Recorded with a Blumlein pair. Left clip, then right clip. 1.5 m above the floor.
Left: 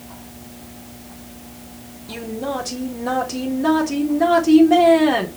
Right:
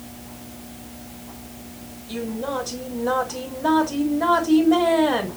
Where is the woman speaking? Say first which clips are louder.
Left 1 dB; 30° left, 4 m.